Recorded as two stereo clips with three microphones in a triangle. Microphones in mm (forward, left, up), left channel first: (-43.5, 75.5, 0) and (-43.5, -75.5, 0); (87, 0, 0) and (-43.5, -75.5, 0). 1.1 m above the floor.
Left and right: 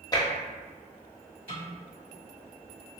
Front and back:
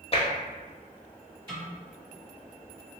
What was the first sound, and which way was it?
Tapping, 45° left.